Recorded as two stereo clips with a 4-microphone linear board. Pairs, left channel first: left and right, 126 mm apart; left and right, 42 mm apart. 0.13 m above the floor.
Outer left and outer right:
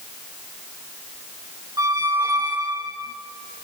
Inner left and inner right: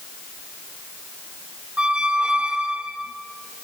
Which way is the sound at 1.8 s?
30° right (ahead or behind).